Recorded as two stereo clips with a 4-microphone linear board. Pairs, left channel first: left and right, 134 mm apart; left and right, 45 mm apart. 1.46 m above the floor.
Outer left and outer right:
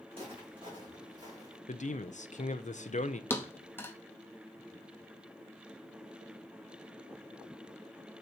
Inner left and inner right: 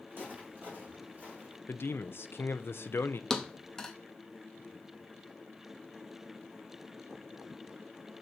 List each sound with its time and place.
0.1 s footsteps: 45° right (ahead or behind), 5.5 m; by 1.6 s 30° right (ahead or behind), 5.5 m
1.7 s a man speaking: 65° left (ahead or behind), 0.6 m
3.3 s a thud: 15° left (ahead or behind), 0.9 m